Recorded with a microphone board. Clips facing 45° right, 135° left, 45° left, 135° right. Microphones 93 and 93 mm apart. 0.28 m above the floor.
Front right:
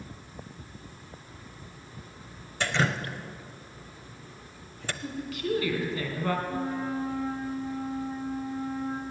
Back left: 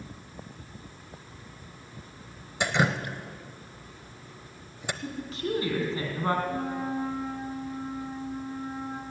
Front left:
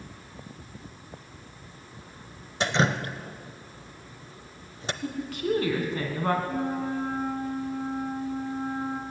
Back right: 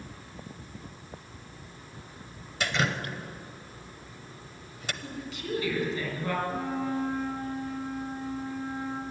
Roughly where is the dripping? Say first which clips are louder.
Back left 2 dB, front left 4 dB; left.